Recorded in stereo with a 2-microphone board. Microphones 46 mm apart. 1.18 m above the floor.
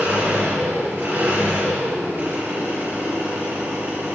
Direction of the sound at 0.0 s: 50° right (ahead or behind).